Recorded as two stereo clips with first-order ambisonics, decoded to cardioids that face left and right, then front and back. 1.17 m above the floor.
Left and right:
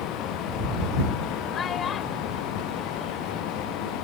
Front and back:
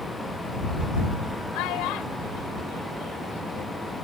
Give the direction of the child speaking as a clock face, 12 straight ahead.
11 o'clock.